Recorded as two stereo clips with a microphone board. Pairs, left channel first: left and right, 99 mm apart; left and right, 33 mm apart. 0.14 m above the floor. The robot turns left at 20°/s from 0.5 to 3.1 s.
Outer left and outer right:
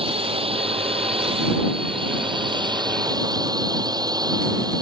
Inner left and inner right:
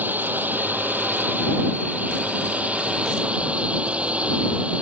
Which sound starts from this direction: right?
A drone, at 0.0 s.